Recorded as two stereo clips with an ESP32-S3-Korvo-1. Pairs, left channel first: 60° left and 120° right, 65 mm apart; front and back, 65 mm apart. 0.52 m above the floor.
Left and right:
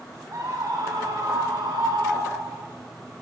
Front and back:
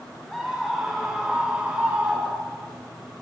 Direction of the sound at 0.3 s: 85° right.